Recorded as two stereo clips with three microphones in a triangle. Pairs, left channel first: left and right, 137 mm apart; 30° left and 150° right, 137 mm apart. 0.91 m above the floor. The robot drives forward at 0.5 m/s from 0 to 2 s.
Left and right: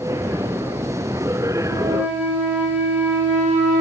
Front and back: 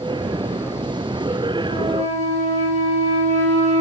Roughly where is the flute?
Behind.